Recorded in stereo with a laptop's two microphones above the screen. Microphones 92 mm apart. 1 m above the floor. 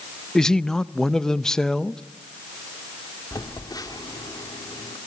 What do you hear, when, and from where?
0.3 s a man speaking: 5° left (ahead or behind), 0.5 m
3.3 s a phone buzzing: 45° left (ahead or behind), 2.5 m